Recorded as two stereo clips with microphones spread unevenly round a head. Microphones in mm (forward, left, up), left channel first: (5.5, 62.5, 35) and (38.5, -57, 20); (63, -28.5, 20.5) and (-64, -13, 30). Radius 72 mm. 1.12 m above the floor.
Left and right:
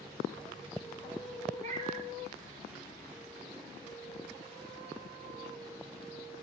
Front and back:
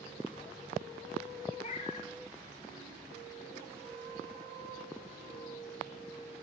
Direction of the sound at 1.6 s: 40° right.